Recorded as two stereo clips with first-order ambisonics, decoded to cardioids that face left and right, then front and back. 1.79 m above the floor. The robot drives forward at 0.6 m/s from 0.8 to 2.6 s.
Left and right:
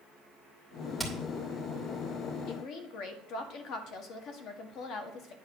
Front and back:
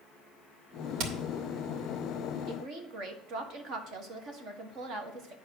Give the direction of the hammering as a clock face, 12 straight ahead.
6 o'clock.